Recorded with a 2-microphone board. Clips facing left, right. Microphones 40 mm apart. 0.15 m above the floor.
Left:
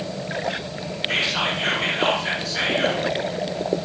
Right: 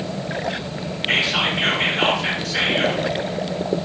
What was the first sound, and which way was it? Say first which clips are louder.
Whispering: right 3 dB; 70° right (ahead or behind).